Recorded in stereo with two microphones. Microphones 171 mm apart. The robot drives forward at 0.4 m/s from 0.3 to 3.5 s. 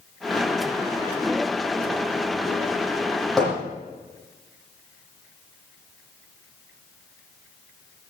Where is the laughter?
No laughter in this recording.